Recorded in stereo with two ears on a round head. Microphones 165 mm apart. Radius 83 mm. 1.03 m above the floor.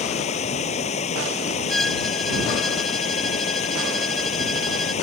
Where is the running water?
40° left (ahead or behind).